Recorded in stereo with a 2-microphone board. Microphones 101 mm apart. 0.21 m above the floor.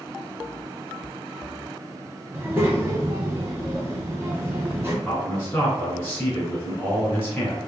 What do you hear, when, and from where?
2.3 s a child speaking: 25° right (ahead or behind), 1.2 m
5.0 s a man speaking: 20° left (ahead or behind), 2.0 m